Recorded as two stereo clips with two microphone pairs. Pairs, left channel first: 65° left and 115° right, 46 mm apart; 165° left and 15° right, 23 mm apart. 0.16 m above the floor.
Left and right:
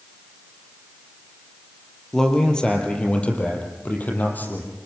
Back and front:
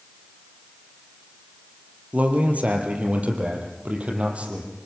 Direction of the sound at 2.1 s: 15° right.